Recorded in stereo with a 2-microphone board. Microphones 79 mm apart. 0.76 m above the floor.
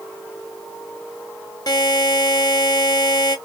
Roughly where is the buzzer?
Left.